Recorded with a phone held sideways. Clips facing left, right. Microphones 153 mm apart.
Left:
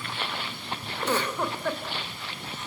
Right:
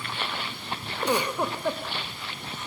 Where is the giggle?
15° right (ahead or behind), 2.5 m.